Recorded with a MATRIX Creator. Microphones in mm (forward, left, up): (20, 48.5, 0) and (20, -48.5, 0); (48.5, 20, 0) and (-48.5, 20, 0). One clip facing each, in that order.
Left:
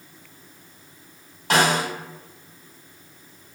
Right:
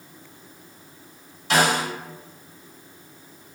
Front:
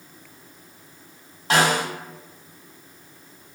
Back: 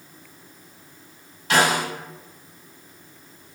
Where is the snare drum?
55° left, 1.2 m.